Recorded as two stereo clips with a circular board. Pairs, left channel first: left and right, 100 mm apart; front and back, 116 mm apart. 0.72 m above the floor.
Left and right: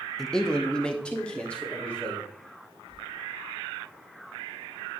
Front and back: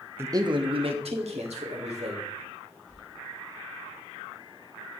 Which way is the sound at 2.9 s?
85° left.